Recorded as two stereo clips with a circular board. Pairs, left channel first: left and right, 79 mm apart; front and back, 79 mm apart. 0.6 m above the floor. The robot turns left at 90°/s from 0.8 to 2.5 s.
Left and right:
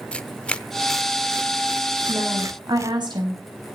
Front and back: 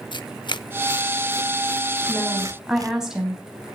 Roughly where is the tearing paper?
Ahead.